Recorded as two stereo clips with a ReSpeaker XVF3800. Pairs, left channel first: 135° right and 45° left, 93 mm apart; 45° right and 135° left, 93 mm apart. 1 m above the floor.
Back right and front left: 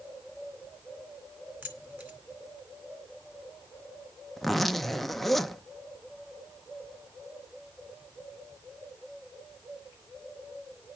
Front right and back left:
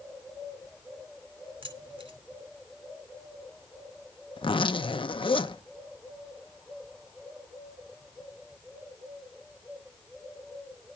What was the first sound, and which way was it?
Keys jangling, 115° left.